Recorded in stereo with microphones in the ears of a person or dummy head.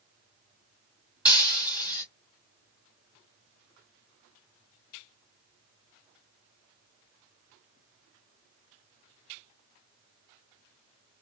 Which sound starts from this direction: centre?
Breaking glass, at 1.2 s.